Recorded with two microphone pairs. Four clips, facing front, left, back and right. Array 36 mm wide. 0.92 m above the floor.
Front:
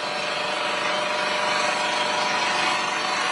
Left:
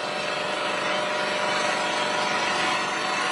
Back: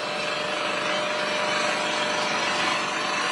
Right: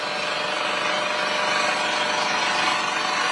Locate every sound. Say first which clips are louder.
0.0 s an engine running: right 2 dB, front 1 dB; 45° right, 2.5 m